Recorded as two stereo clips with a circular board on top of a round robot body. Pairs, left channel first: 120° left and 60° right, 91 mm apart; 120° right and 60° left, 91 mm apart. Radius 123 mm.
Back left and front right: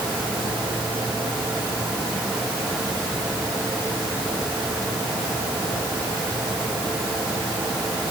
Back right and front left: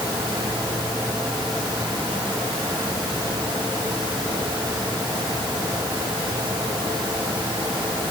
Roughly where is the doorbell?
I don't hear a doorbell.